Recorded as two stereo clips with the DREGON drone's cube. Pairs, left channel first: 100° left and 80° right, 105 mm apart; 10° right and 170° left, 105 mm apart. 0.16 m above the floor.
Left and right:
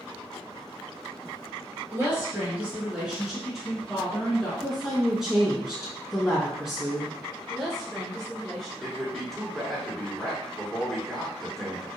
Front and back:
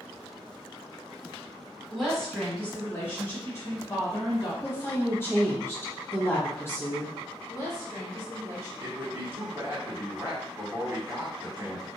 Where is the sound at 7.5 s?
15° left, 1.4 m.